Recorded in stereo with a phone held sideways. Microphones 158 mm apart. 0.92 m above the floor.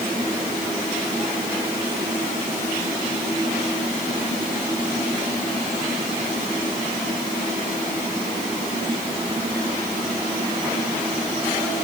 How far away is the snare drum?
No snare drum in this recording.